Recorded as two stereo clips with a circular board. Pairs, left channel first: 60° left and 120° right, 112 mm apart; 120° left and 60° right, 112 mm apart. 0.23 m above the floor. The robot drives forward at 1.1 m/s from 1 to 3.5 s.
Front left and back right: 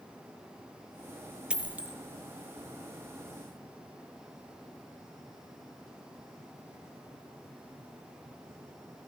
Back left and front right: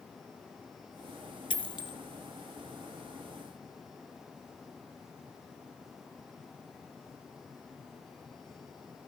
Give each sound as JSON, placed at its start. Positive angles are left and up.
{"t": 1.5, "sound": "a dropped coin", "azimuth_deg": 160, "distance_m": 0.8}